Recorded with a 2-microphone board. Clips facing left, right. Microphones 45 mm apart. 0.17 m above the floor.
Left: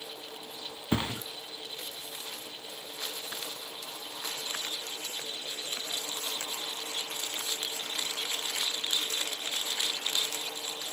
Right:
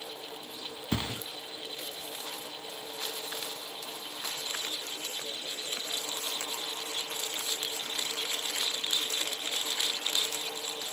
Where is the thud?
20° left (ahead or behind), 0.6 m.